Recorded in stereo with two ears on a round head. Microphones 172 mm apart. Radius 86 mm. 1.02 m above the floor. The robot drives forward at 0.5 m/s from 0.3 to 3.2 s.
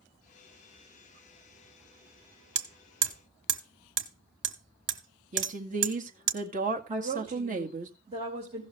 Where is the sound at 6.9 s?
30° right (ahead or behind), 3 m.